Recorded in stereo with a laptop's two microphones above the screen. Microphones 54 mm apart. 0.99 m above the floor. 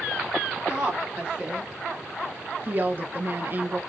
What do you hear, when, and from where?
0.7 s a woman speaking: 20° right (ahead or behind), 1.6 m; by 3.8 s 35° right (ahead or behind), 0.5 m